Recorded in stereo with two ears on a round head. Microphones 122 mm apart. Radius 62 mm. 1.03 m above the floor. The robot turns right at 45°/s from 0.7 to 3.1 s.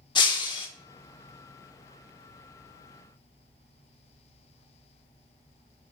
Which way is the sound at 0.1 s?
35° left (ahead or behind).